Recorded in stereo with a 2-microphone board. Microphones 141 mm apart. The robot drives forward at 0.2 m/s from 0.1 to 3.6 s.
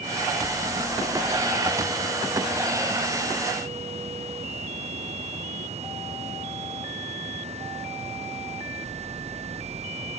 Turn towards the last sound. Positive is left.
No sound to turn to.